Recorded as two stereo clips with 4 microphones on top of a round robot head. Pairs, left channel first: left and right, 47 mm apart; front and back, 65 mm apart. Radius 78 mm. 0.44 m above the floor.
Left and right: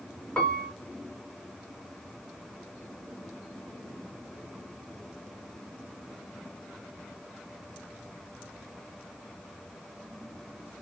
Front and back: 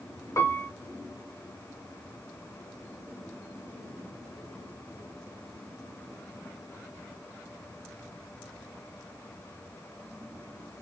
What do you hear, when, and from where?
0.4 s a piano: 25° left, 1.1 m